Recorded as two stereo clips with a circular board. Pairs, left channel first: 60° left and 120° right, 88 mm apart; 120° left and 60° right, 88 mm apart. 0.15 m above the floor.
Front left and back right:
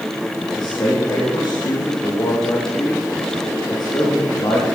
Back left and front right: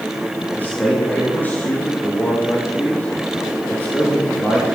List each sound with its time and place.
0.6 s a man speaking: 50° left, 6 m